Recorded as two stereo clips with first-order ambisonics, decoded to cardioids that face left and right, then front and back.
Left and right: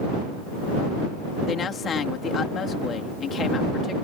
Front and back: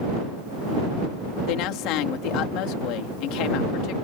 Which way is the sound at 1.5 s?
25° left.